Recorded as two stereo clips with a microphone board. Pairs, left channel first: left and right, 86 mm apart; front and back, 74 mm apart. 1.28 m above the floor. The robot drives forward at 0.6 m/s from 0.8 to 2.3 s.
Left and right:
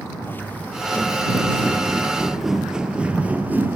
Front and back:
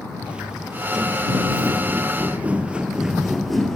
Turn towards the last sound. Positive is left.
turn(degrees=-75)